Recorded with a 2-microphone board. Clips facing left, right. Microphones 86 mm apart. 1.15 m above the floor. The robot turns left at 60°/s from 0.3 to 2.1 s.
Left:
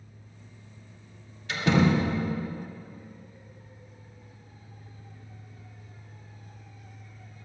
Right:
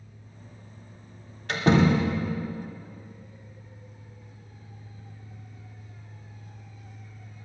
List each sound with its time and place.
1.5 s a door slam: 125° right, 2.5 m; by 2.1 s 160° right, 2.5 m